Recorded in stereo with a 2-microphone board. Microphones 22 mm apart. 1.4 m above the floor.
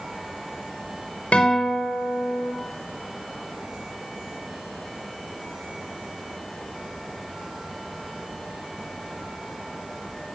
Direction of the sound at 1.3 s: 75° left (ahead or behind).